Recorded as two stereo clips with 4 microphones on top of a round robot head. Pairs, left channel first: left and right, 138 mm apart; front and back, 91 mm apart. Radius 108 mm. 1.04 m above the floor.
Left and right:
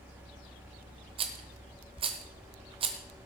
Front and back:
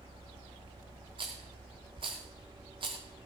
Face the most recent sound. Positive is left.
turn(degrees=-125)